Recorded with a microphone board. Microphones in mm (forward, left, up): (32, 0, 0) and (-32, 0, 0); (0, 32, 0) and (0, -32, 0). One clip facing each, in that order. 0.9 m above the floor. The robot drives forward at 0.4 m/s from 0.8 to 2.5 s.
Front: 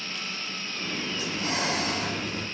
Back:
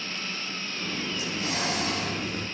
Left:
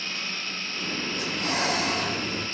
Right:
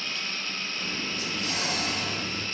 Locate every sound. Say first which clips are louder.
1.1 s breathing: front 3 dB, left 4 dB; 55° left, 5 m; by 2.5 s 60° left, 4.5 m